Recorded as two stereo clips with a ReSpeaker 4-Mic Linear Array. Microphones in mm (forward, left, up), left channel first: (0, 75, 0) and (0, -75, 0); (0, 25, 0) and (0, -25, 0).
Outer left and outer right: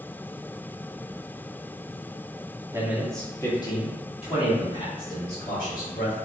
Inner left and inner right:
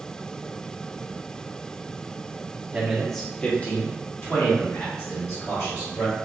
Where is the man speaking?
15° right (ahead or behind), 0.9 m; by 6.2 s 65° left (ahead or behind), 2.5 m.